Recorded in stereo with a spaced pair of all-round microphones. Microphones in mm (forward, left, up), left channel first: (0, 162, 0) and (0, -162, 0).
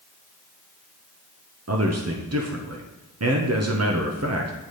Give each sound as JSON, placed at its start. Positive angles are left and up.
{"t": 1.7, "sound": "a man speaking", "side_deg": -50, "distance_m": 0.7}